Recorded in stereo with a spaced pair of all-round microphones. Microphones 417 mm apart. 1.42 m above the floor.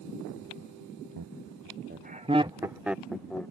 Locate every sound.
1.2 s laughter: 55° right (ahead or behind); by 3.5 s 5° left (ahead or behind)